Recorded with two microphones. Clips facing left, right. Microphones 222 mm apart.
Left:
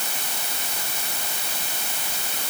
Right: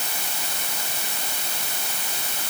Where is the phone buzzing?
No phone buzzing in this recording.